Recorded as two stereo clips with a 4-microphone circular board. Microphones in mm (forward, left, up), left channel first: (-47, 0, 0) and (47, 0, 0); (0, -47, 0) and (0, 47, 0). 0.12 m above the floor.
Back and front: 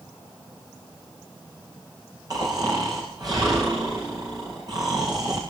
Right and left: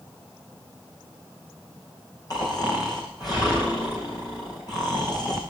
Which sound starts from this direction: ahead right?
Snoring, at 2.3 s.